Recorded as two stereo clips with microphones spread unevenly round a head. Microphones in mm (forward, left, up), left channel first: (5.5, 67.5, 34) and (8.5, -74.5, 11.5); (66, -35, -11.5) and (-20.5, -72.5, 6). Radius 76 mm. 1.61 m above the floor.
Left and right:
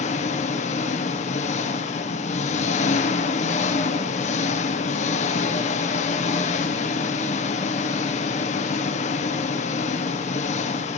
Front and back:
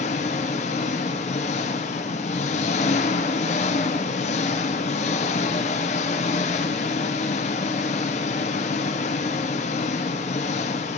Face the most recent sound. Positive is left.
turn(degrees=50)